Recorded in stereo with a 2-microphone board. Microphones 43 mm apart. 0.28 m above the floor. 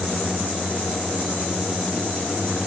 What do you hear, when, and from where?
Only background noise.